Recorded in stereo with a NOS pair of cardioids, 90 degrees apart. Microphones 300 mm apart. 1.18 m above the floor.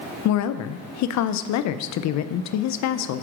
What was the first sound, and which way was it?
A woman speaking, 65° left.